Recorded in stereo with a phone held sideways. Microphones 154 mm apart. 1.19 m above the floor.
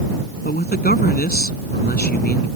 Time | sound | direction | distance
0.5 | a man speaking | 85° left | ?